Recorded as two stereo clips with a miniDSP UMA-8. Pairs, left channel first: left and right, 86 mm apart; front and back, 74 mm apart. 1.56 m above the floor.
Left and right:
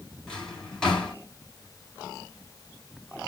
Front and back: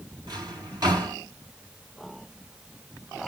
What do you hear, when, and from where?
0.3 s a drawer: 170° left, 2.5 m